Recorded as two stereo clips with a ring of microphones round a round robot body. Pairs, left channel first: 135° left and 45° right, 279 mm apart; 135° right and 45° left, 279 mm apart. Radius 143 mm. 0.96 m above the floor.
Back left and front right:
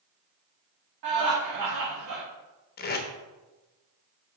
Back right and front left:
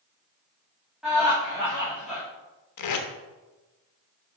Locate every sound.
1.0 s laughter: 45° right, 2.5 m
2.8 s tape being pulled: 165° right, 1.0 m